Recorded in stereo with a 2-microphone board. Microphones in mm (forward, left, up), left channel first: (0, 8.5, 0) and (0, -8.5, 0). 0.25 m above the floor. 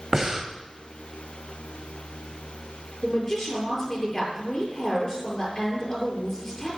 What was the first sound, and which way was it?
Breathing, 25° right (ahead or behind).